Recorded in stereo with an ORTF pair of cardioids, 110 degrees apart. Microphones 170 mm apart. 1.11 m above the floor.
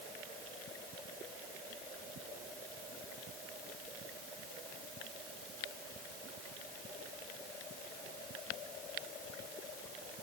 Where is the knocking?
I don't hear knocking.